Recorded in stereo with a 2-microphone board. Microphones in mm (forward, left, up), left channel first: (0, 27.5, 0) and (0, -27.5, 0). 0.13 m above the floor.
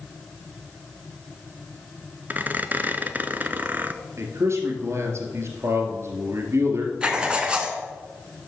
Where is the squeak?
35° right (ahead or behind), 0.7 m.